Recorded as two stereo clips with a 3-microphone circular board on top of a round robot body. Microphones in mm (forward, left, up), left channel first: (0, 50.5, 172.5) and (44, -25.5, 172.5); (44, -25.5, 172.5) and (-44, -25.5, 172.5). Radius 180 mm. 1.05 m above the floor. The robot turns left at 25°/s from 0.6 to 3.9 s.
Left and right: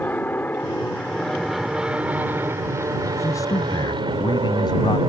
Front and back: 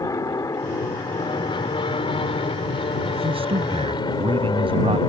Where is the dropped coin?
I don't hear a dropped coin.